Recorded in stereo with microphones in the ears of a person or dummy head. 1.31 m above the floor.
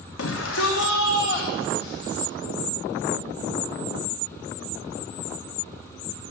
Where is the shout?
80° left, 1.3 m; by 2.2 s 55° left (ahead or behind), 3 m.